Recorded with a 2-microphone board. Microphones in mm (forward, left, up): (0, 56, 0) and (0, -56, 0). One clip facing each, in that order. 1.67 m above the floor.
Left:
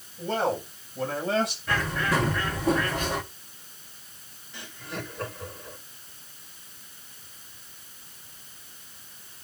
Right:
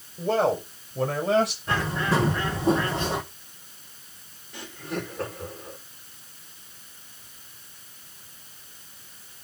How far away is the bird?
About 1.5 m.